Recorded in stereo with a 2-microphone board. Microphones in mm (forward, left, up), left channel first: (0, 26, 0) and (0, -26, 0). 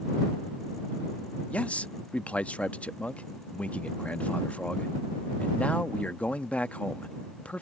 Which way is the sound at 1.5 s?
30° left (ahead or behind).